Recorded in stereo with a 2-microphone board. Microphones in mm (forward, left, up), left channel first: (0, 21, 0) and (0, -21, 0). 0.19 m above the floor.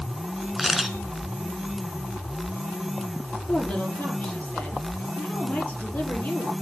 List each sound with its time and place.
0.6 s a camera shutter: 5° right (ahead or behind), 1.0 m
3.5 s a woman speaking: 45° left (ahead or behind), 3.5 m